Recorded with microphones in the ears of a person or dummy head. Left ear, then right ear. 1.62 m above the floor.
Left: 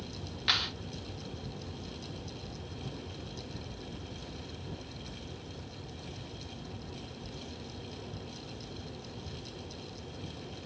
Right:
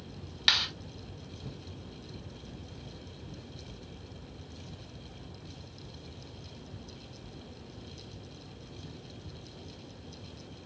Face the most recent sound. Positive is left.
turn(degrees=-40)  # may be behind; listen again after turning